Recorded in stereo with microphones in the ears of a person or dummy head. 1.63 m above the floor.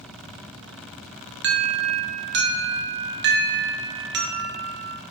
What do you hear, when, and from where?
1.4 s an alarm: 55° right (ahead or behind), 1.4 m